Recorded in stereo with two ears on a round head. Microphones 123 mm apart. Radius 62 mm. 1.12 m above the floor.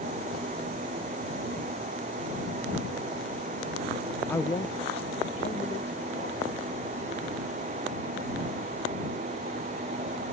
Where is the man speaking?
10° left (ahead or behind); by 6.5 s 50° left (ahead or behind).